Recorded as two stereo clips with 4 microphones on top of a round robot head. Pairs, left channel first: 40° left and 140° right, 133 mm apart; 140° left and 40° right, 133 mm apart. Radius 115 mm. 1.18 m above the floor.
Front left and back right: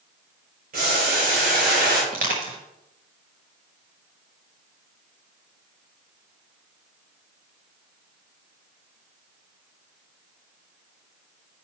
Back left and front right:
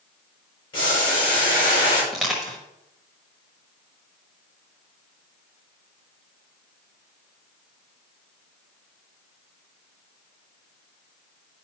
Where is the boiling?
160° right, 5 m.